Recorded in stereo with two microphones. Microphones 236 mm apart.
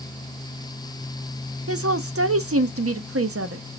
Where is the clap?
No clap in this recording.